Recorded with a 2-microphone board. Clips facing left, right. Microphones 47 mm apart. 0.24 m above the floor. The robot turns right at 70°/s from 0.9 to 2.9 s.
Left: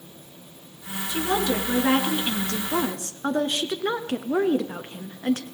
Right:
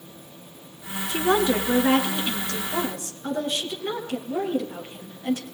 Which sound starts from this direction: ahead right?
A woman speaking, at 1.1 s.